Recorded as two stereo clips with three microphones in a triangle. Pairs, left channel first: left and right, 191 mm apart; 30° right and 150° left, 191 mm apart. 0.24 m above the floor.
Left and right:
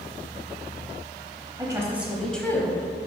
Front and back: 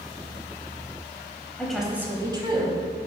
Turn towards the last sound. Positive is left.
turn(degrees=150)